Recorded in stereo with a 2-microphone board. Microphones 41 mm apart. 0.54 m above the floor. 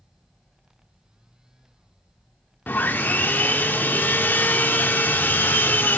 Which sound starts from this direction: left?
Sawing, at 2.7 s.